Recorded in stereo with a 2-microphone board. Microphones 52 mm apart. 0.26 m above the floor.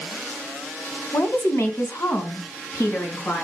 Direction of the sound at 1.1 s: 55° left (ahead or behind).